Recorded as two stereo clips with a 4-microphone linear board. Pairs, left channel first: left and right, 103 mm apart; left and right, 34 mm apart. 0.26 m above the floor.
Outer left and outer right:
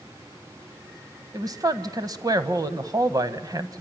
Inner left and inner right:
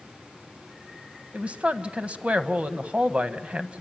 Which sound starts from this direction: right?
A woman speaking, at 1.3 s.